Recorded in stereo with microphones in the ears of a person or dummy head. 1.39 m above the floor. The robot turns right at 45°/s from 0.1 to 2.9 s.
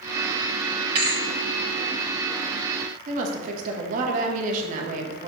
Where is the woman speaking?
50° right (ahead or behind), 1.5 m.